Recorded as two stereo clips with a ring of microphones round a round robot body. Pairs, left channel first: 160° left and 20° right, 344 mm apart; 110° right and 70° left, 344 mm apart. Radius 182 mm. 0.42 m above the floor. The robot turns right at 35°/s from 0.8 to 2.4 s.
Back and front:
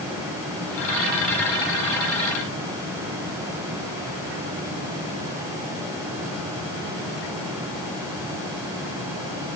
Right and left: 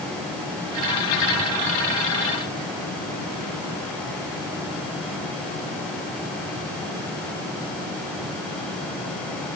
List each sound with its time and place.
Only background noise.